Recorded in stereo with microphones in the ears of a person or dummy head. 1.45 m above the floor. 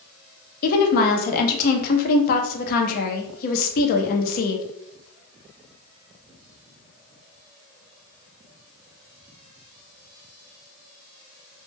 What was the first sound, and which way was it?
A woman speaking, 50° left (ahead or behind).